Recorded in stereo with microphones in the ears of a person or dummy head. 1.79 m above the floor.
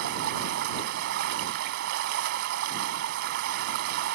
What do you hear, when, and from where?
0.0 s running water: 60° right (ahead or behind)